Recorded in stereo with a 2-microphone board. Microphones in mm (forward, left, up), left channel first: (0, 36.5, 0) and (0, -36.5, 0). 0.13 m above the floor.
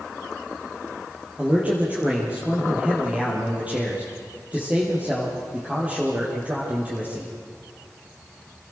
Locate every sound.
1.4 s a man speaking: 20° right (ahead or behind), 4.5 m